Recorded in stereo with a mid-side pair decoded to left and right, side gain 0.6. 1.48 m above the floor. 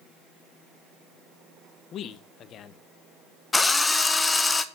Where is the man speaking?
50° left, 1.1 m.